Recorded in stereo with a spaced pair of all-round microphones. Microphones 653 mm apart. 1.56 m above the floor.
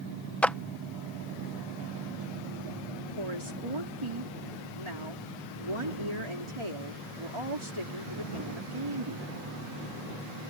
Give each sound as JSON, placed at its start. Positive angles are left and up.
{"t": 0.4, "sound": "a clap", "side_deg": 0}
{"t": 3.2, "sound": "a woman speaking", "side_deg": -50}